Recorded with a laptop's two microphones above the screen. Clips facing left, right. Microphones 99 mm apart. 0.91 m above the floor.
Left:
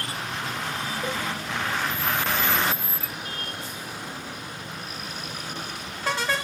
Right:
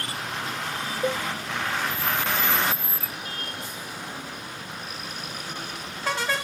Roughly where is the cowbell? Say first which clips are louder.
Right 6 dB; right.